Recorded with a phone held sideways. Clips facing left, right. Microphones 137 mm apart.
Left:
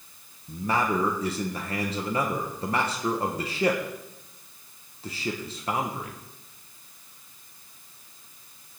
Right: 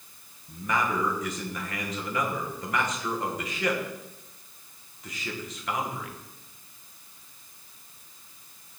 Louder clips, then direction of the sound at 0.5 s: Left 2 dB; 30° left (ahead or behind).